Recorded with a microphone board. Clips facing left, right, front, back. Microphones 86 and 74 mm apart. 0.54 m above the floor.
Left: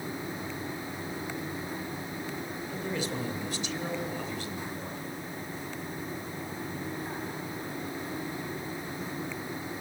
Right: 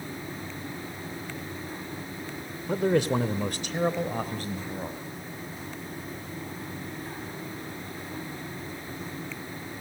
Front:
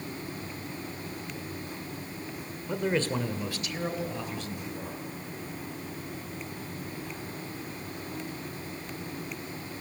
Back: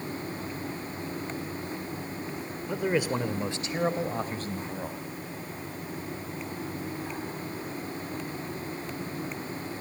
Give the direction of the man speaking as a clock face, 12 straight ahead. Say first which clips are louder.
Right 12 dB, back 1 dB; 3 o'clock.